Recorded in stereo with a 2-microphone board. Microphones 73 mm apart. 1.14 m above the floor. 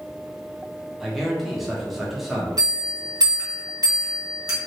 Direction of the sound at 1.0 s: Centre (ahead or behind).